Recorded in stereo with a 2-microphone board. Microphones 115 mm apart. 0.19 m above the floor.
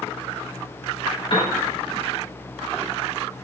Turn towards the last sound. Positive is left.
turn(degrees=40)  # may be behind; listen again after turning